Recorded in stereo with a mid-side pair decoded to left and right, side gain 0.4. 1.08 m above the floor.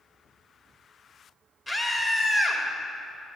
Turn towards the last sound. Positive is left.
turn(degrees=15)